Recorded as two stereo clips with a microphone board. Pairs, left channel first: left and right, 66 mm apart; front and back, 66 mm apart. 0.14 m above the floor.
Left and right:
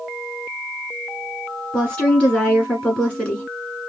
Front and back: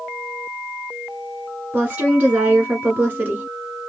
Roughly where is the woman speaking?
Behind left.